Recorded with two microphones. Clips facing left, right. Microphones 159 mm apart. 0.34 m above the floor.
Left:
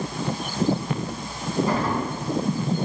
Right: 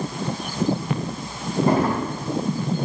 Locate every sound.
1.7 s a drawer: 60° right (ahead or behind), 2.0 m